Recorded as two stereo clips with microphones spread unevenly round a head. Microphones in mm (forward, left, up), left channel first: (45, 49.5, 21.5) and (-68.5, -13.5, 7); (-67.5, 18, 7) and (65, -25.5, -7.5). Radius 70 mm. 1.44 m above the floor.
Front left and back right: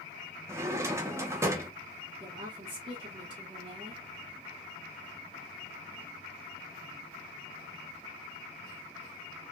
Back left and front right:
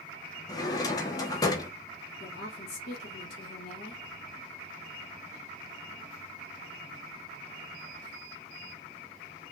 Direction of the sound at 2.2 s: Straight behind.